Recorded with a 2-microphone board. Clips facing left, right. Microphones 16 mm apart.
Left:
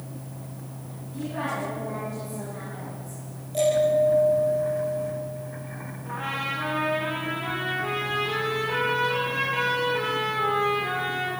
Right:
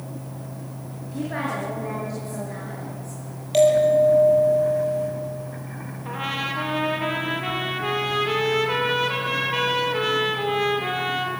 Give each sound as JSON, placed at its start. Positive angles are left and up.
{"t": 1.0, "sound": "a woman speaking", "side_deg": -80, "distance_m": 7.0}
{"t": 3.5, "sound": "a bell", "side_deg": -85, "distance_m": 10.0}
{"t": 6.0, "sound": "a trumpet", "side_deg": -45, "distance_m": 4.0}